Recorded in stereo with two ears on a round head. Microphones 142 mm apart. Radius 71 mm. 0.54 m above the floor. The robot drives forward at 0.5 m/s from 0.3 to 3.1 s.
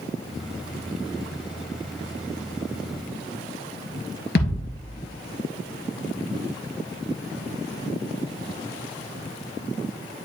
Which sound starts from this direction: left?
A thud, at 4.3 s.